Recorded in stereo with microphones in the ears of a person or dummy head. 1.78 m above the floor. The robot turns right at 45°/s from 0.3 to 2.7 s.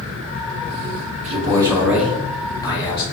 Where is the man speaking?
40° right, 1.6 m; by 3.0 s 25° left, 1.6 m.